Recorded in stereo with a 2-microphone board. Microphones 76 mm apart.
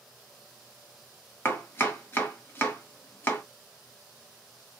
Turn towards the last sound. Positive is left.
turn(degrees=30)  # may be behind; listen again after turning